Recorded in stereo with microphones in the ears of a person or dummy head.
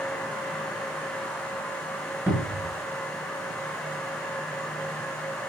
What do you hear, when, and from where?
2.3 s a cupboard door: 10° right (ahead or behind), 1.2 m